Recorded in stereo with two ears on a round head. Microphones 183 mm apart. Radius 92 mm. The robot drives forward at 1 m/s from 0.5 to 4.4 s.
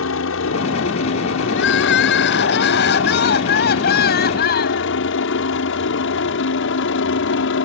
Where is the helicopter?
70° left (ahead or behind); by 7.7 s 65° left (ahead or behind).